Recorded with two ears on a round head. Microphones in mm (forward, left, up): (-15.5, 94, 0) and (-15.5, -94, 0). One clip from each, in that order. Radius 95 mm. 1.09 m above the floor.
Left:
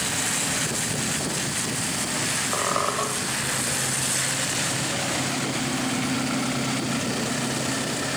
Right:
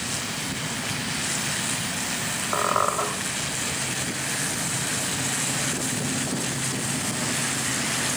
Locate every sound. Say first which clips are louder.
2.5 s a squeak: right 4 dB; 45° right (ahead or behind), 1.3 m